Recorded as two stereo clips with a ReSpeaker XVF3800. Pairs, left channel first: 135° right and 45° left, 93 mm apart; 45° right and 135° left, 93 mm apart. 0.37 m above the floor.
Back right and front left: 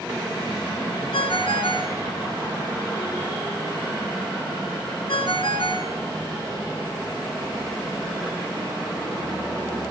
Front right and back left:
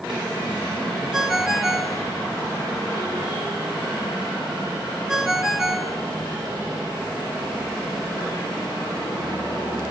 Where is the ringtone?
140° right, 2.5 m.